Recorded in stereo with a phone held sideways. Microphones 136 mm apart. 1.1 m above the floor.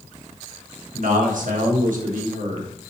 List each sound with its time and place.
0.9 s a man speaking: 75° right (ahead or behind), 1.1 m